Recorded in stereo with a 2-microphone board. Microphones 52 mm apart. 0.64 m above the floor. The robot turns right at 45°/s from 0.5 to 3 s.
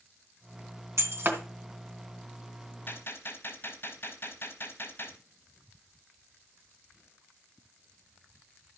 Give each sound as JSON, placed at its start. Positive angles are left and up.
{"t": 1.0, "sound": "breaking glass", "side_deg": -65, "distance_m": 2.5}
{"t": 2.9, "sound": "a gunshot", "side_deg": 40, "distance_m": 3.5}